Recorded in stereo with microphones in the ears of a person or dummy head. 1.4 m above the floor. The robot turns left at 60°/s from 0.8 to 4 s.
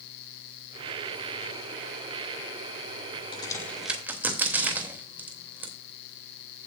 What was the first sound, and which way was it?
A crack, 30° left (ahead or behind).